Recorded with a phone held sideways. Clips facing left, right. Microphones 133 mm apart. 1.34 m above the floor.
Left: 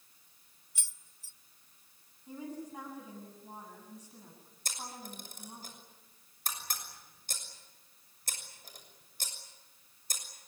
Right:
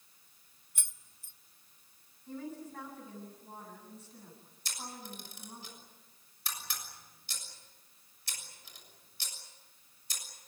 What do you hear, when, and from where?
0.8 s keys jangling: 55° right (ahead or behind), 0.6 m
2.3 s a woman speaking: 15° left (ahead or behind), 8.5 m
4.7 s a camera shutter: 45° left (ahead or behind), 6.5 m